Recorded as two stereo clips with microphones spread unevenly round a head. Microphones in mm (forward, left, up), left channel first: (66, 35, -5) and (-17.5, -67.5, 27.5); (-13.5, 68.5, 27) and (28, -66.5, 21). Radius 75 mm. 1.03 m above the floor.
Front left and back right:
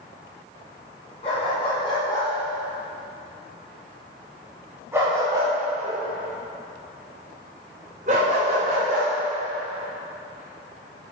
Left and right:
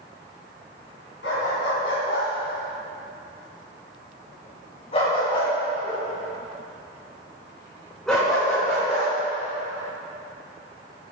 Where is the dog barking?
110° left, 3.5 m; by 9.1 s 160° right, 4.5 m.